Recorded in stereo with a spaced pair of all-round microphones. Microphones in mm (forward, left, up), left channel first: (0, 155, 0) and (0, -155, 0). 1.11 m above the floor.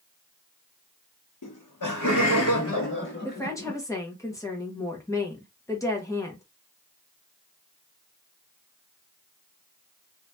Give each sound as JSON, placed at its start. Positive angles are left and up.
{"t": 1.4, "sound": "laughter", "side_deg": 85, "distance_m": 0.7}
{"t": 3.2, "sound": "a woman speaking", "side_deg": 10, "distance_m": 1.2}